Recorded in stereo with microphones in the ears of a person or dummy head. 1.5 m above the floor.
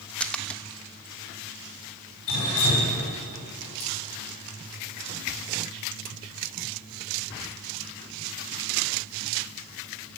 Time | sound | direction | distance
0.2 | a splash | 5° left (ahead or behind) | 0.5 m
2.3 | dripping | 75° left (ahead or behind) | 5.5 m